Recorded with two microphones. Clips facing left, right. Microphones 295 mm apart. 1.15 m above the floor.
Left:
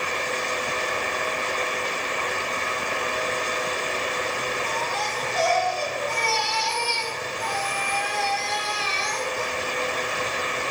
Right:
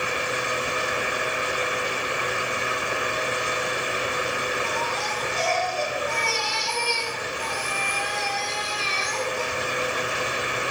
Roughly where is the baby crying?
Right.